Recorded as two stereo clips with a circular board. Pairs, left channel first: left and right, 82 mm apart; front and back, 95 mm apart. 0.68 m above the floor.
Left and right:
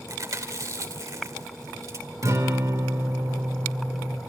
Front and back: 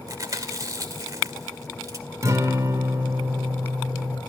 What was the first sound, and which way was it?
Chewing, 130° right.